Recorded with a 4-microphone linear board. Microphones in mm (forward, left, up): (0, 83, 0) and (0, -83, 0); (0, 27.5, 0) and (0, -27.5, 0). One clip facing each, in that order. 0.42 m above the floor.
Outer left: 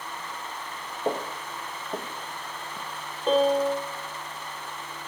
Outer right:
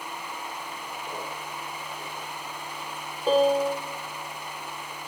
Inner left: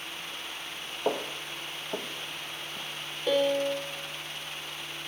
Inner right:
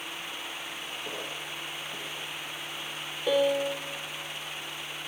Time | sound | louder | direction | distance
1.1 | footsteps | outer left 10 dB, inner left 10 dB | 80° left | 3 m
3.3 | a piano | even, even | 5° right (ahead or behind) | 1.7 m